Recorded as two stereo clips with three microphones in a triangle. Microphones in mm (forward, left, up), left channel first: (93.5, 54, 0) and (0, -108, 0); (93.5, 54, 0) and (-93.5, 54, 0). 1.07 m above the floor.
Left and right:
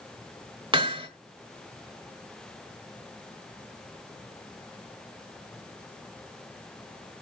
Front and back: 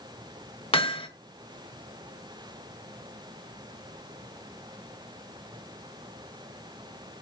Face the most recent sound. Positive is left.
turn(degrees=-60)